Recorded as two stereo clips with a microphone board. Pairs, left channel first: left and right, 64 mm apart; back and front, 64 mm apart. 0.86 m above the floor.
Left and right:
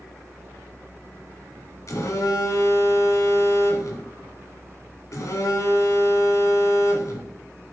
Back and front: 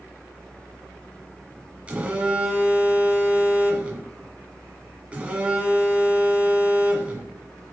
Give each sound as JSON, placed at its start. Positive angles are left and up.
{"t": 1.9, "sound": "a phone buzzing", "azimuth_deg": 65, "distance_m": 1.4}